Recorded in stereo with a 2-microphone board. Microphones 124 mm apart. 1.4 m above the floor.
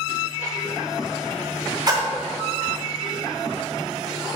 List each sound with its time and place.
1.9 s a splash: 35° right (ahead or behind), 1.1 m